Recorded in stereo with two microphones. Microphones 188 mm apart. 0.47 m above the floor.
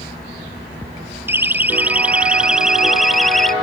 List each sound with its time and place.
1.3 s a siren: 10° right (ahead or behind); by 3.5 s centre (ahead or behind)